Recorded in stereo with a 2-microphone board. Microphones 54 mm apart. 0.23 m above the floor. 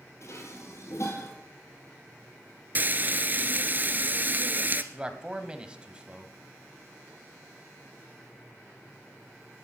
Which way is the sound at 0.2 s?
60° left (ahead or behind).